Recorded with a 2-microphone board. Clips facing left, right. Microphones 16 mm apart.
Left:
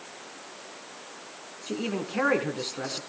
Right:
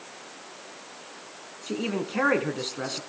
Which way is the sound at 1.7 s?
5° right (ahead or behind).